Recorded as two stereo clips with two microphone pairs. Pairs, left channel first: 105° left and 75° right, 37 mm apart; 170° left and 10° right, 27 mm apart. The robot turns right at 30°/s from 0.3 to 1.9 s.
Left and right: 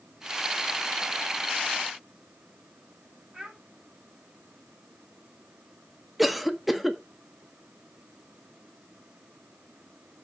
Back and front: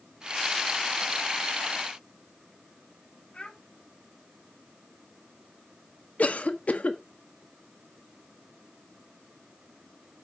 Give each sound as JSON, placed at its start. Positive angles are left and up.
{"t": 3.3, "sound": "a child speaking", "azimuth_deg": -135, "distance_m": 2.5}
{"t": 6.2, "sound": "a cough", "azimuth_deg": -160, "distance_m": 0.9}